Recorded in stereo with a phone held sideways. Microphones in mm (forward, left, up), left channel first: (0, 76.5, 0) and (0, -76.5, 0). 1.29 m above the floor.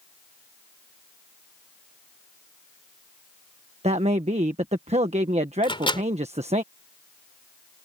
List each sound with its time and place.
3.8 s a man speaking: 45° right (ahead or behind)
5.6 s a microwave: 35° left (ahead or behind)